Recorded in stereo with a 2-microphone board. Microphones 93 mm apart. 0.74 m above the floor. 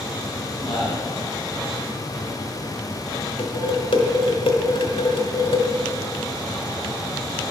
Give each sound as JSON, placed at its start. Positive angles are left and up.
{"t": 0.6, "sound": "a man speaking", "side_deg": 60, "distance_m": 3.5}
{"t": 3.4, "sound": "dishes clattering", "side_deg": 70, "distance_m": 1.3}